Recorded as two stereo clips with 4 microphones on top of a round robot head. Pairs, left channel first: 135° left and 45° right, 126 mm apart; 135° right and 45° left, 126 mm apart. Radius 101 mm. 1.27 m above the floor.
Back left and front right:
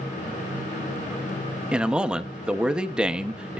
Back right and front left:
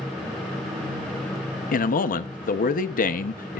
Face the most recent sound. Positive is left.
turn(degrees=-125)